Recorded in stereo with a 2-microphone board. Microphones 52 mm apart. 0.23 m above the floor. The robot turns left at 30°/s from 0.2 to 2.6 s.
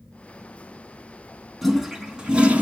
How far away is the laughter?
No laughter in this recording.